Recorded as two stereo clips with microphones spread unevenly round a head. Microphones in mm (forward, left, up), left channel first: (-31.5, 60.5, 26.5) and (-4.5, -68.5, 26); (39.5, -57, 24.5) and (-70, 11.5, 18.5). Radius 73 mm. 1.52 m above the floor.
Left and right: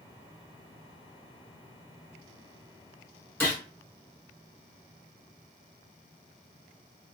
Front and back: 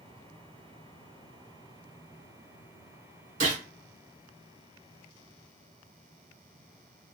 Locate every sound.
3.4 s a gunshot: 175° left, 1.4 m